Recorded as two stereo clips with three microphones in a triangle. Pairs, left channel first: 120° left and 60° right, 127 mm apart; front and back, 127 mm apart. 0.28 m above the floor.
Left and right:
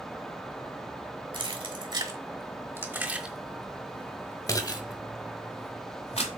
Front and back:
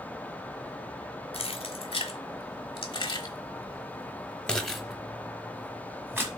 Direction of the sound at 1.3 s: 25° right.